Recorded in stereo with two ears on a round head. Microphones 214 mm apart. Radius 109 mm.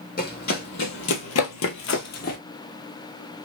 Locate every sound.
0.2 s running footsteps: 35° left (ahead or behind), 1.1 m; by 2.4 s 40° left (ahead or behind), 0.8 m